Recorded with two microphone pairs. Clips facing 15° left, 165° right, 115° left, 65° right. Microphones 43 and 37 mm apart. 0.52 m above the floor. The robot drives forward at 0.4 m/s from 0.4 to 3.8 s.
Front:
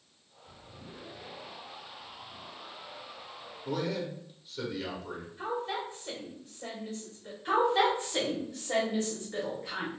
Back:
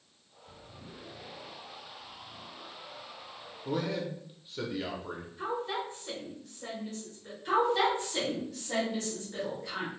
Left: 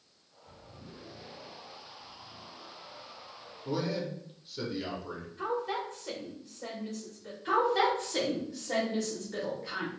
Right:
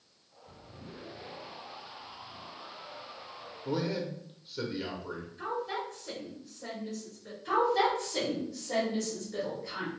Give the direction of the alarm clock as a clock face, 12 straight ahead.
No alarm clock in this recording.